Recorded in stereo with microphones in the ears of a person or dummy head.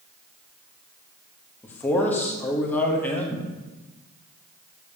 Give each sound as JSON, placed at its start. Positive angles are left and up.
{"t": 1.6, "sound": "a man speaking", "side_deg": 15, "distance_m": 0.9}